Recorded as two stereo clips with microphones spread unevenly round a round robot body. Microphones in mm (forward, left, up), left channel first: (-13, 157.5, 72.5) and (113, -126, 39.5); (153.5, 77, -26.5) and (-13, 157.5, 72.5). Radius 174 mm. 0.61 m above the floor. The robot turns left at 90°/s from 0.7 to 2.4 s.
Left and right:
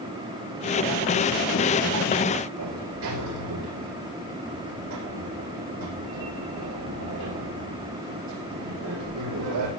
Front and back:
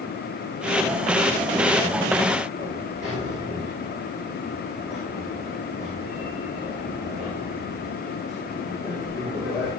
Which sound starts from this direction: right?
A sliding door, at 2.6 s.